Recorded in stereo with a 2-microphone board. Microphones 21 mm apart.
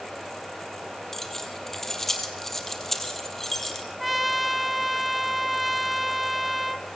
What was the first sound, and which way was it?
Keys jangling, 20° left (ahead or behind).